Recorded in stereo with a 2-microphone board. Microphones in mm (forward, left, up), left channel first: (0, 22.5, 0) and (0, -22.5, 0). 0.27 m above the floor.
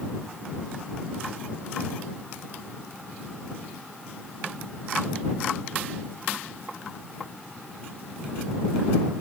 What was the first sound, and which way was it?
Only background noise.